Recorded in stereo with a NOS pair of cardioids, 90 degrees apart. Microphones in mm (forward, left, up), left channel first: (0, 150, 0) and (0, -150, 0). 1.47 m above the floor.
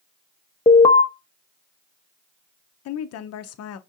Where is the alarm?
15° left, 0.6 m.